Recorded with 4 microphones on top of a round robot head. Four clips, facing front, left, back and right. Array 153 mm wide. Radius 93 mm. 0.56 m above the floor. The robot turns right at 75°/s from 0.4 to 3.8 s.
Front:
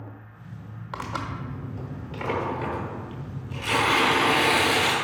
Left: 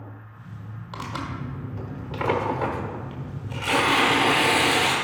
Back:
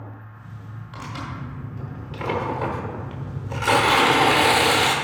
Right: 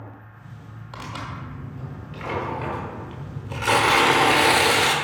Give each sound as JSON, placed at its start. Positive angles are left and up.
{"t": 0.9, "sound": "tearing paper", "azimuth_deg": 10, "distance_m": 1.1}